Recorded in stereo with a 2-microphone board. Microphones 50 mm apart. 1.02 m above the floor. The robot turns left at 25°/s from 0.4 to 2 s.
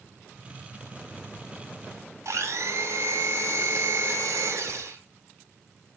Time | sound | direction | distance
2.2 | a blender | 80° right | 4 m